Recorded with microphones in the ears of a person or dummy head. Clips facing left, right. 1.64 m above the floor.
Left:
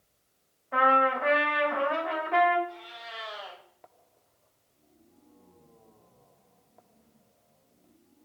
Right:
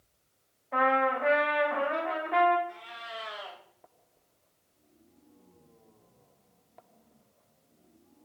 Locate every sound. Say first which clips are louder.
0.7 s a trumpet: left 1 dB; 10° left (ahead or behind), 1.1 m
2.7 s a cat meowing: even; 35° right (ahead or behind), 2.5 m